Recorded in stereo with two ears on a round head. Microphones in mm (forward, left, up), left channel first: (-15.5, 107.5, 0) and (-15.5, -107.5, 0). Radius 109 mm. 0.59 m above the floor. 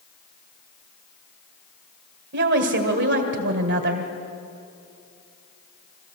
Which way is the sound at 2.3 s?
50° right (ahead or behind).